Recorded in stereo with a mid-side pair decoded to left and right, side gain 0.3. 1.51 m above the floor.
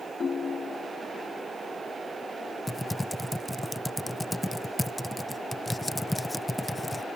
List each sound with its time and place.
0.2 s a ringtone: 55° left
2.7 s typing on a keyboard: 15° left